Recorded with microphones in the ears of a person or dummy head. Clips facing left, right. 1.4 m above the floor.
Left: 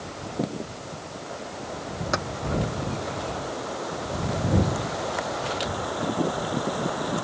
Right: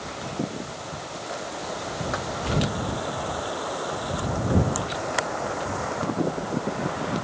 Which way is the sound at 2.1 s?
45° left (ahead or behind).